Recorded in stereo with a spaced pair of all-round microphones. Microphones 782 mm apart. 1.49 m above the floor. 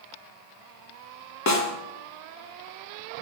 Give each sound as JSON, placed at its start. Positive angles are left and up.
{"t": 1.5, "sound": "a snare drum", "side_deg": 25, "distance_m": 0.6}